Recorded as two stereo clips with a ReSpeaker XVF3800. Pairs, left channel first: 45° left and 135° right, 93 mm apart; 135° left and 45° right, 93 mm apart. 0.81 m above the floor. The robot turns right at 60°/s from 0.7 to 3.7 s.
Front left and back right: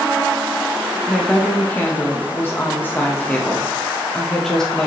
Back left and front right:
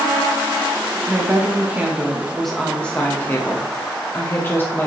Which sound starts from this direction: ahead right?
A woman speaking, at 1.1 s.